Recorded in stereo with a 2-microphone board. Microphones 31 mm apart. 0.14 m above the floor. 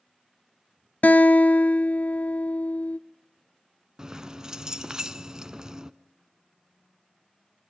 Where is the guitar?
60° left (ahead or behind), 0.5 m.